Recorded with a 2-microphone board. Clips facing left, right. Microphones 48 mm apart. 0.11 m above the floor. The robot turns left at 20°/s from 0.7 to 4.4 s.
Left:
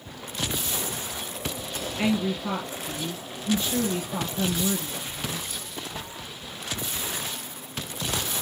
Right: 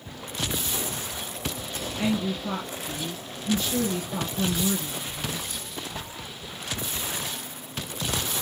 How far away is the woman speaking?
About 1.9 m.